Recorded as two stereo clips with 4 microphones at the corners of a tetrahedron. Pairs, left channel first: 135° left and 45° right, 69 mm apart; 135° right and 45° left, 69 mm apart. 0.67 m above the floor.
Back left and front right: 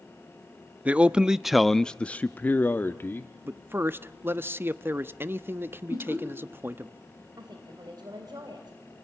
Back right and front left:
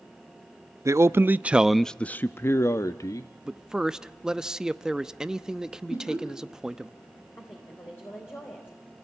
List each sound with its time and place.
0.8 s a man speaking: 20° left, 0.7 m; by 3.3 s 170° right, 1.0 m
3.5 s a man speaking: 30° right, 0.7 m
5.9 s laughter: 175° right, 6.5 m
7.4 s a woman speaking: 75° right, 4 m